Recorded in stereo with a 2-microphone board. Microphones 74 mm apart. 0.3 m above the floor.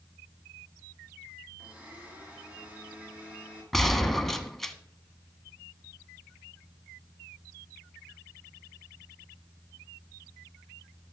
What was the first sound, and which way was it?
A blender, 20° right (ahead or behind).